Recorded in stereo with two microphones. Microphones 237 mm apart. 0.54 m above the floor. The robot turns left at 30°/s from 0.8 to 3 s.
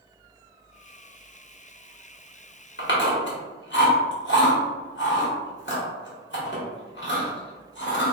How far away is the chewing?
About 1.1 m.